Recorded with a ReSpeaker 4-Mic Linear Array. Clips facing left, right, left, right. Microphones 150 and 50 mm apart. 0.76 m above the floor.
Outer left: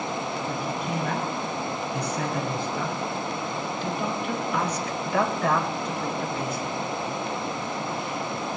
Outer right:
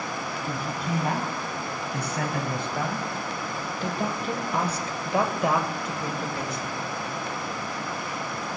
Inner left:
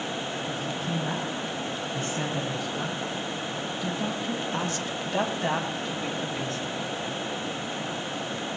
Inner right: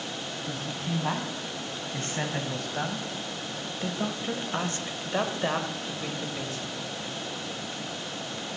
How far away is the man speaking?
About 6 m.